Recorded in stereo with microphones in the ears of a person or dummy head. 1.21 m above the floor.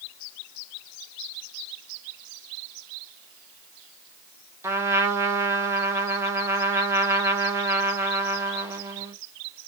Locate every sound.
4.6 s a trumpet: 10° right (ahead or behind), 0.5 m